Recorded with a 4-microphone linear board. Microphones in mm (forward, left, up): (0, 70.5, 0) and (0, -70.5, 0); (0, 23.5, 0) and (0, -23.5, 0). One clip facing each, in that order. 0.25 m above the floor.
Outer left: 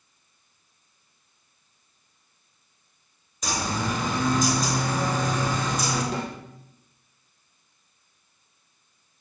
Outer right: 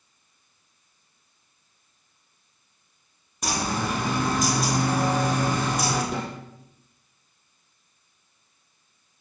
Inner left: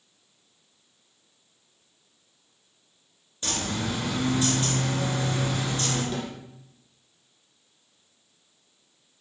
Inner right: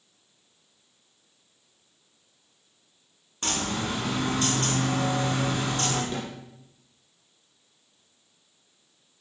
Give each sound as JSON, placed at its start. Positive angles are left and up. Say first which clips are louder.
{"t": 3.4, "sound": "a bird", "louder": "outer right 1 dB, inner right 1 dB", "side_deg": -60, "distance_m": 2.5}
{"t": 6.1, "sound": "a snare drum", "louder": "even, inner left 1 dB", "side_deg": -20, "distance_m": 3.0}